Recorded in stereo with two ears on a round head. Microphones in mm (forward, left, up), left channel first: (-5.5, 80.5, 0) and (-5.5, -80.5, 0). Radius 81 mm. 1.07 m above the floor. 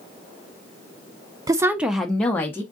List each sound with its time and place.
1.5 s a woman speaking: 20° right (ahead or behind), 0.6 m; by 2.6 s 15° left (ahead or behind), 1.0 m